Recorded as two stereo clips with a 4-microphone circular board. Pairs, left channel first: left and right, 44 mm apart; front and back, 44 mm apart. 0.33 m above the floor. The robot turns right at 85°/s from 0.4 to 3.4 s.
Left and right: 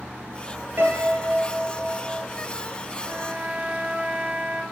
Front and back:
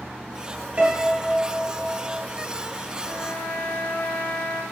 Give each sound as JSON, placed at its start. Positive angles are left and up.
{"t": 0.8, "sound": "a piano", "azimuth_deg": -130, "distance_m": 3.5}
{"t": 3.0, "sound": "a trumpet", "azimuth_deg": -65, "distance_m": 3.0}